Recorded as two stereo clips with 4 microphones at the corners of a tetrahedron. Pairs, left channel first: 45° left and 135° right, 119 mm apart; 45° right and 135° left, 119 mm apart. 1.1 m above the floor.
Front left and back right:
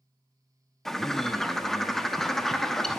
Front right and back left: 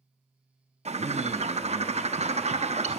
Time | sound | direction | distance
0.8 | a bird | 130° left | 0.8 m